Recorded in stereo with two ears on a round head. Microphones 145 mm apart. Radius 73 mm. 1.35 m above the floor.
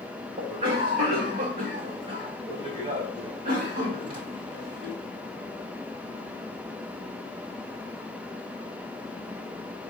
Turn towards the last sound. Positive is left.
turn(degrees=-35)  # may be behind; listen again after turning